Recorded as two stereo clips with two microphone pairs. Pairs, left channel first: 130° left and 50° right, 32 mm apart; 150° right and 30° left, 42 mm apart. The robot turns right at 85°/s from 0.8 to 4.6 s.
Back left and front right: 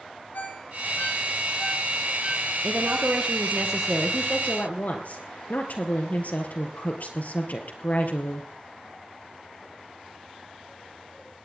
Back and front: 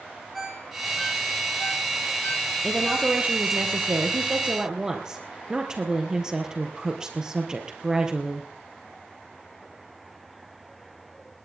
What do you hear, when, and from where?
0.3 s a ringtone: 120° left, 8.5 m; by 3.1 s 40° right, 8.5 m
2.6 s a woman speaking: 65° right, 4 m; by 8.5 s 105° left, 4 m